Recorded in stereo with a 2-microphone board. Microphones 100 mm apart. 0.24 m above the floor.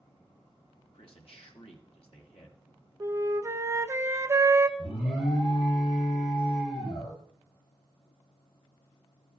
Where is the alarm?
60° left (ahead or behind), 7 m.